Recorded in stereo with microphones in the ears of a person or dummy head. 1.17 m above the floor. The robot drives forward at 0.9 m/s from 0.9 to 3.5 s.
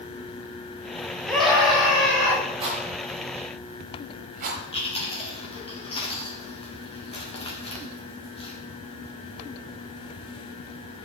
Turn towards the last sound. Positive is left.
turn(degrees=30)  # may be behind; listen again after turning